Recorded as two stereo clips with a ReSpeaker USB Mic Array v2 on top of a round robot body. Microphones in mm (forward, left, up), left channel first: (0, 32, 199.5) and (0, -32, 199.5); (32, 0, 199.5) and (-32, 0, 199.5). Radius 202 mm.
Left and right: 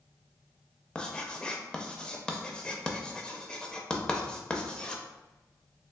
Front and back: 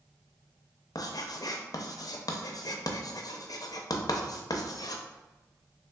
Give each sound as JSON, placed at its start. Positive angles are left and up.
{"t": 0.9, "sound": "writing", "azimuth_deg": 15, "distance_m": 0.5}